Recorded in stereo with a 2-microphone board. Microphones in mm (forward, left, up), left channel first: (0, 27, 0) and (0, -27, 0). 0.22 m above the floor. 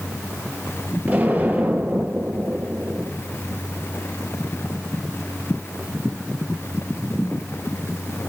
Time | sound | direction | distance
1.1 | an explosion | 35° right (ahead or behind) | 4.5 m